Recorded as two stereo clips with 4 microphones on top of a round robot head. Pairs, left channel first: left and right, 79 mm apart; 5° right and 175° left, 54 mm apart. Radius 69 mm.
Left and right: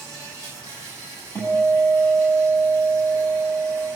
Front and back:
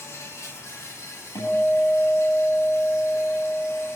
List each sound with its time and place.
0.0 s an insect: 35° left, 7.5 m
1.4 s a guitar: 30° left, 9 m